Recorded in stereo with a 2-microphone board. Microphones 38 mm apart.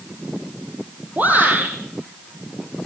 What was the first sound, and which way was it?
A shout, 50° right (ahead or behind).